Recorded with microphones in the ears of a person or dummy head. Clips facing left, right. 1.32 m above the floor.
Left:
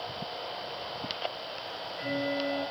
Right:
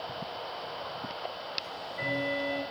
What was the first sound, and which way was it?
Ticking, 85° right.